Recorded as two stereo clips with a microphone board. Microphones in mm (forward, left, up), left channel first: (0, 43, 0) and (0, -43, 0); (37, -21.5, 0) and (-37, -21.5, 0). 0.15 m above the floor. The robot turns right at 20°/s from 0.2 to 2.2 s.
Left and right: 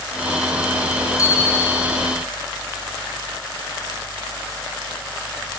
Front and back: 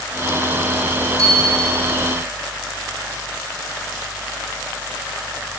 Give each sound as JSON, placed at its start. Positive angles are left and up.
{"t": 1.2, "sound": "a bicycle bell", "azimuth_deg": 140, "distance_m": 5.0}